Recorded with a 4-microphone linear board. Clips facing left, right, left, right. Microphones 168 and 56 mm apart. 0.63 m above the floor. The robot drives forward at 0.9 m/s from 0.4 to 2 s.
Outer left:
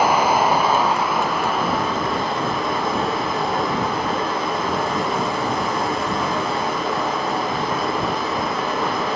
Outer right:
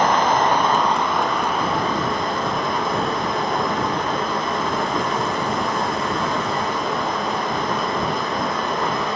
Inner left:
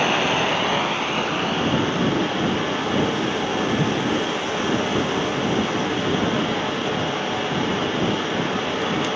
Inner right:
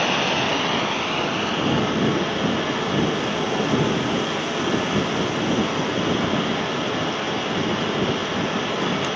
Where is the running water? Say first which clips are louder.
Outer left 1 dB, inner left 1 dB; 10° left (ahead or behind), 1.1 m; by 9.2 s 5° left (ahead or behind), 2.5 m.